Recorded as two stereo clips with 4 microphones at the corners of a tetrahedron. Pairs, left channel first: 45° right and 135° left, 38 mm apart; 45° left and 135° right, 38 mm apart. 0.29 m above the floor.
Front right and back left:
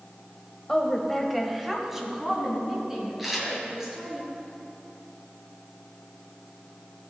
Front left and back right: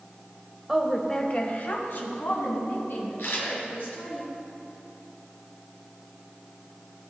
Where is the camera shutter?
50° left, 2.5 m.